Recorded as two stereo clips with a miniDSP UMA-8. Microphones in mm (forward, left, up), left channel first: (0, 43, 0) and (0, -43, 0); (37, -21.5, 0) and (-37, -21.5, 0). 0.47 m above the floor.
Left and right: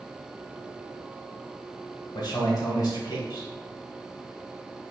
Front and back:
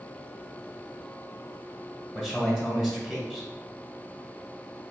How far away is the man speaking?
About 1.6 m.